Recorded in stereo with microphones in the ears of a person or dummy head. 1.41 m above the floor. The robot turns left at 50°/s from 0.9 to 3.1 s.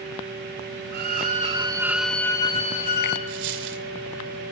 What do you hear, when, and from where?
0.9 s a violin: 125° right, 2.5 m; by 3.2 s 125° left, 2.5 m
3.3 s a dropped coin: 60° right (ahead or behind), 1.9 m